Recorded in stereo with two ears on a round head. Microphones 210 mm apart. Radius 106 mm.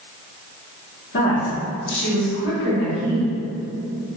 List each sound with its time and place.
1.1 s a woman speaking: 50° left (ahead or behind), 1.4 m; by 3.3 s 45° left (ahead or behind), 1.2 m